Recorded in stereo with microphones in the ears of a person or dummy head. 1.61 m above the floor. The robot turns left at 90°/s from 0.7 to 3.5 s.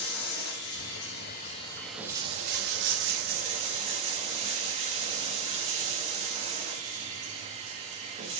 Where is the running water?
110° left, 1.5 m; by 8.4 s 140° right, 1.5 m.